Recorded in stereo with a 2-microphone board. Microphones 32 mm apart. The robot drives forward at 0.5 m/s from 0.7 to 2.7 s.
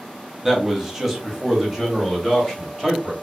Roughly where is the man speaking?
Centre.